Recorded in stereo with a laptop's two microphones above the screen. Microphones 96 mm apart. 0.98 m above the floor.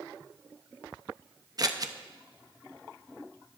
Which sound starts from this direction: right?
Scissors, at 1.6 s.